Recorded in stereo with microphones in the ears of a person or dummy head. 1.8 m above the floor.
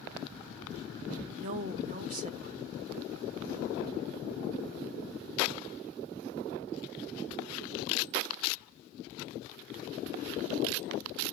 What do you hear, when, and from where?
1.4 s a woman speaking: 45° right (ahead or behind), 0.9 m